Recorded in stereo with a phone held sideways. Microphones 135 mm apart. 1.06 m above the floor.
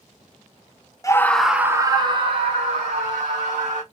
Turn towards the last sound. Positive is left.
turn(degrees=-60)  # may be behind; listen again after turning